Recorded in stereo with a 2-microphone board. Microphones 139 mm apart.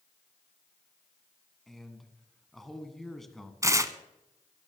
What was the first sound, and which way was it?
A man speaking, centre (ahead or behind).